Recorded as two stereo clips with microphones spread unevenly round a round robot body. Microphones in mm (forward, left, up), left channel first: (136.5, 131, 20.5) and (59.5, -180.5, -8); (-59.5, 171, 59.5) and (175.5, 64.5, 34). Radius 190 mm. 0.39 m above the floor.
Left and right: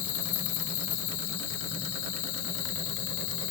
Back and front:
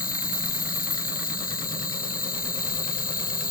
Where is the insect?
100° left.